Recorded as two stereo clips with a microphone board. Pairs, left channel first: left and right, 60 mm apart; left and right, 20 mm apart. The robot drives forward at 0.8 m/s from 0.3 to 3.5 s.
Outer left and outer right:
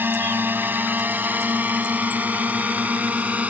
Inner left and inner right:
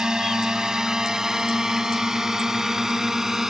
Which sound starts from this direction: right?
A drone, at 0.0 s.